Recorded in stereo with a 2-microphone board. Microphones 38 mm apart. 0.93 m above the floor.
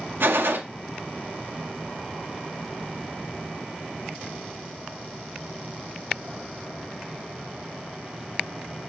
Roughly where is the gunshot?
Right.